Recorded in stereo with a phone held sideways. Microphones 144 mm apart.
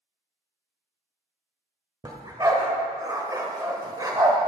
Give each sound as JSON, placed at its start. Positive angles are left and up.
{"t": 2.0, "sound": "a dog barking", "side_deg": -30, "distance_m": 1.3}